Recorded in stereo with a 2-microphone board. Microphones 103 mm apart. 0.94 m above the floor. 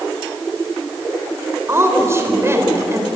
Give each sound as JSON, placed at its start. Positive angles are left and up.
{"t": 1.7, "sound": "a woman speaking", "side_deg": -25, "distance_m": 4.5}